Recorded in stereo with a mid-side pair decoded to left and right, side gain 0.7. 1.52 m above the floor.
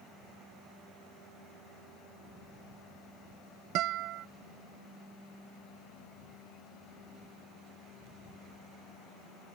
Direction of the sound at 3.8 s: 60° right.